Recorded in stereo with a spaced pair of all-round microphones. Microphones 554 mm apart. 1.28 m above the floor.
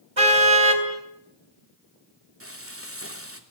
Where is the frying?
25° right (ahead or behind), 3 m.